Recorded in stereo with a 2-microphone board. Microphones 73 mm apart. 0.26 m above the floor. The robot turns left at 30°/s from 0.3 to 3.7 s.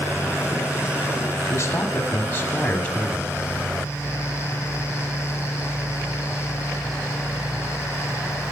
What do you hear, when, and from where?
1.5 s a man speaking: 65° left, 1.4 m; by 3.3 s 10° left, 1.4 m